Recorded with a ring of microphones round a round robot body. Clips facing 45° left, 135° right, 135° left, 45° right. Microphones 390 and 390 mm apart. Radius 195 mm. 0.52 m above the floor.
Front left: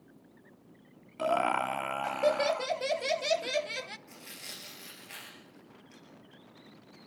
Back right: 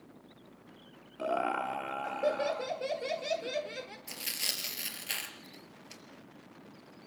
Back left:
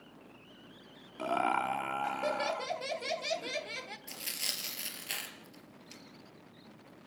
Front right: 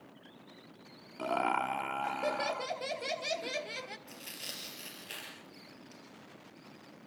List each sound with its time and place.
1.2 s laughter: 50° left, 0.8 m
4.1 s tearing paper: 165° right, 3.5 m